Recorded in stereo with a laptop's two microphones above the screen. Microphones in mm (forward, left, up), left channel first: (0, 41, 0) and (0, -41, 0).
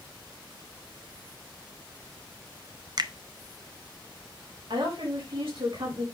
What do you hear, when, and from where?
3.0 s a finger snap: 50° right (ahead or behind), 0.5 m
4.7 s a woman speaking: 80° right, 5 m